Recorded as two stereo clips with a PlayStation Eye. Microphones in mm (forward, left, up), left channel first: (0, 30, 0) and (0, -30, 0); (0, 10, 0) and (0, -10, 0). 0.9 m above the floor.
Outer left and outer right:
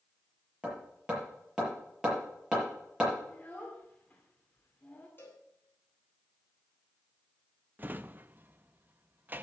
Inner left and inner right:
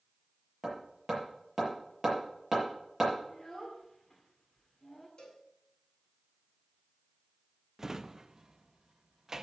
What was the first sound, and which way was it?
Hammering, 10° right (ahead or behind).